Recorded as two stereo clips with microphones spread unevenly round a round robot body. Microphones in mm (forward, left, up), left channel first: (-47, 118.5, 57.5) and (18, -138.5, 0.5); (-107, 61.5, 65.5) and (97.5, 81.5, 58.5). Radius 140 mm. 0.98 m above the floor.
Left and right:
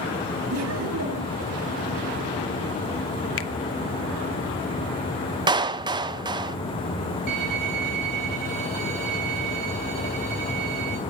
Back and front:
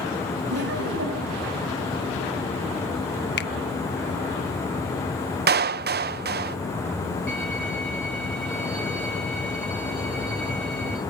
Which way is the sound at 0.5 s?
40° right.